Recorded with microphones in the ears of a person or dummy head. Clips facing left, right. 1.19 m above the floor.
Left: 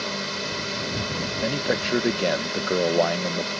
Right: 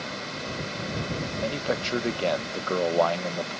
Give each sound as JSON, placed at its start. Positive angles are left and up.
{"t": 0.0, "sound": "a drone", "side_deg": 65}
{"t": 1.4, "sound": "a man speaking", "side_deg": 20}